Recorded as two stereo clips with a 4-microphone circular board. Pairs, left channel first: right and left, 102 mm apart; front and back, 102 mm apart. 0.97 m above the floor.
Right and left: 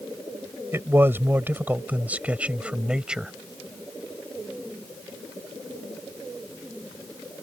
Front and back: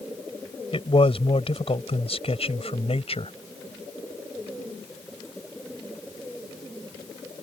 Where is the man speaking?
25° left; by 3.3 s 5° left.